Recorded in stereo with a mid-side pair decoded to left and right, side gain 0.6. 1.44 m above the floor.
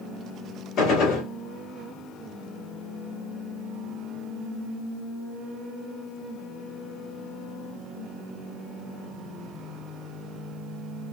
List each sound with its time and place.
0.8 s a gunshot: 65° left, 2.5 m